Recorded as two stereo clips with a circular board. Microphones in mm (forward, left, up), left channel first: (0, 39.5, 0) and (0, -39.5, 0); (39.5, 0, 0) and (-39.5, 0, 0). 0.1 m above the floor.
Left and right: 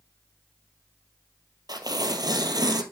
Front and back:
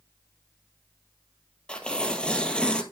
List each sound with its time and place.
1.7 s tearing paper: 75° right, 1.2 m